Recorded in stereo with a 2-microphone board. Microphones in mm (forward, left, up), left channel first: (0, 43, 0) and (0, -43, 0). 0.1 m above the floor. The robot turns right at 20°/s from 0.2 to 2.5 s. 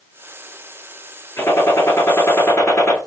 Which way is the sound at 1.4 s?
35° left (ahead or behind).